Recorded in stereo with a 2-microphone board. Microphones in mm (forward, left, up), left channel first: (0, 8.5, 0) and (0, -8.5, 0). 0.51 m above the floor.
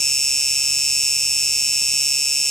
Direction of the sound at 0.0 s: 25° left (ahead or behind).